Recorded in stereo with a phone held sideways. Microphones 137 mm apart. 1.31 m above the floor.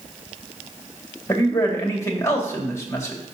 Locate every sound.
1.3 s a man speaking: 20° left (ahead or behind), 1.8 m